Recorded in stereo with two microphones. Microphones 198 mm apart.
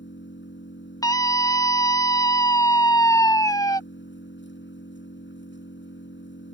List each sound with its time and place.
0.0 s an engine running: 70° left (ahead or behind)
1.0 s a scream: 20° left (ahead or behind)